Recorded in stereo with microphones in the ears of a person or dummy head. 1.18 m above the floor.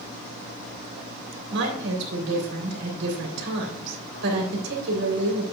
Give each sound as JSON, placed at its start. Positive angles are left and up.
{"t": 1.5, "sound": "a woman speaking", "side_deg": -65, "distance_m": 3.0}